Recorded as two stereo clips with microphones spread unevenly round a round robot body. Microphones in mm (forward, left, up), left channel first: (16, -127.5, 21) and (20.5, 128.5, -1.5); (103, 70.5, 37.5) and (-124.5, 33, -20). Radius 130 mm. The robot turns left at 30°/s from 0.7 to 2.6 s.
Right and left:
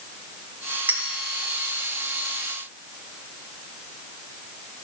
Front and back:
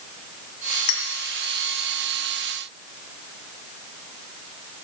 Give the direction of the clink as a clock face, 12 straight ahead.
12 o'clock.